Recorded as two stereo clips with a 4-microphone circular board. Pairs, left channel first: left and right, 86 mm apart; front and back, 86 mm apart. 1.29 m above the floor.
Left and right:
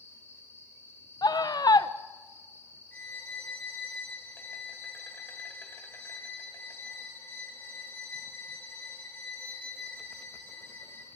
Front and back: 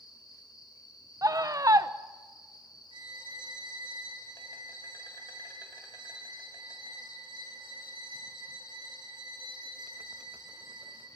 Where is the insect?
30° left, 2 m.